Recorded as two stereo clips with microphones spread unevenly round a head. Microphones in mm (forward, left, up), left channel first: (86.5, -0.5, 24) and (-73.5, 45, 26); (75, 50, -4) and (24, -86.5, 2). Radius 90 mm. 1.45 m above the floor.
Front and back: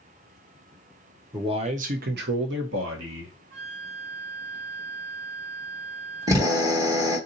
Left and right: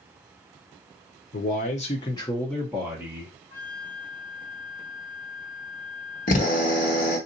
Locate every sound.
1.3 s a man speaking: 100° left, 0.7 m; by 3.4 s 175° left, 1.2 m
3.5 s a flute: 150° left, 2.5 m
6.3 s a drill: 100° left, 1.3 m